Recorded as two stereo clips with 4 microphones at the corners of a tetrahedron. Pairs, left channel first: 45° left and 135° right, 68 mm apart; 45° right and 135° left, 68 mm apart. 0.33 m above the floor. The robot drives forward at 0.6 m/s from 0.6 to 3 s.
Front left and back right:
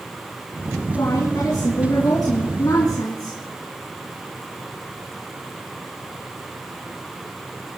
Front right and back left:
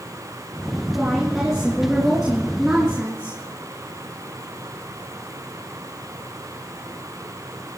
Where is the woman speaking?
45° left, 4 m; by 3.4 s 60° left, 3.5 m.